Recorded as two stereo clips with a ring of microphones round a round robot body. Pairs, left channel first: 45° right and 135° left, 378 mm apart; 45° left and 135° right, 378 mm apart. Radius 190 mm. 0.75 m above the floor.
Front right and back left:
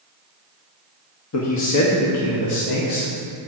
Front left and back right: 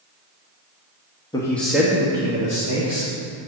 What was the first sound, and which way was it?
A man speaking, 30° right.